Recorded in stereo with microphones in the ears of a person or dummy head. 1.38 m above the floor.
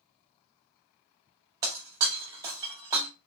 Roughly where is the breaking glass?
Right.